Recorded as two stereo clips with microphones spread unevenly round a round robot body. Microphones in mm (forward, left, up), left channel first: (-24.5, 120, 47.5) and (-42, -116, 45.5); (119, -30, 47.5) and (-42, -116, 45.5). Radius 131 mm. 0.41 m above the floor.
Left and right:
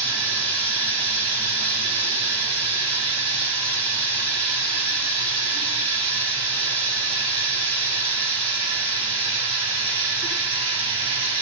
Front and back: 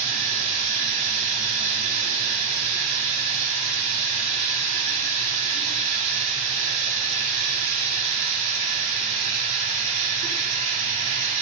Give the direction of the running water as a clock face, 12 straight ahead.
5 o'clock.